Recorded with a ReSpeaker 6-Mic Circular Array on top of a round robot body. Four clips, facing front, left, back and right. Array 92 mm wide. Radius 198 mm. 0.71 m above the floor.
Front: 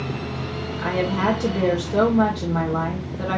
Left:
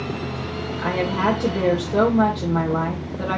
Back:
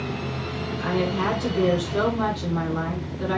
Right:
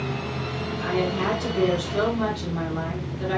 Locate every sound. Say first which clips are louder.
0.8 s a woman speaking: left 3 dB, front 2 dB; 60° left, 3 m